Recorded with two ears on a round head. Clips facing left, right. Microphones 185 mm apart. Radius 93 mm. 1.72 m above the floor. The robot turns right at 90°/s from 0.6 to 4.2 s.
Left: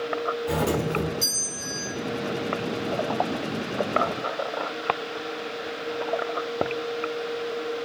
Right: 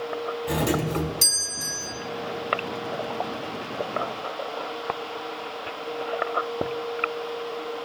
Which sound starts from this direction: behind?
A doorbell, at 0.5 s.